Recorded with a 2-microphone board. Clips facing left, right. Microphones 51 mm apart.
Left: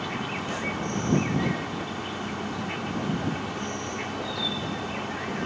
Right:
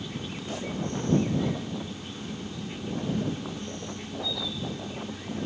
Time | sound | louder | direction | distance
0.0 | an insect | left 6 dB | 75° left (ahead or behind) | ?